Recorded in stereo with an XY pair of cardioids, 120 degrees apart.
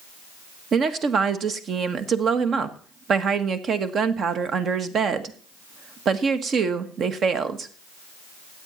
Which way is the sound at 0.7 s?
45° right.